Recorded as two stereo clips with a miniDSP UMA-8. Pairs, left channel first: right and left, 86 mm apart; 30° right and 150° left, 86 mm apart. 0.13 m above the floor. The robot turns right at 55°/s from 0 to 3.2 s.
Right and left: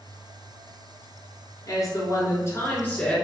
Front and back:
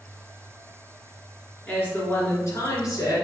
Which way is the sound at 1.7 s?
100° right.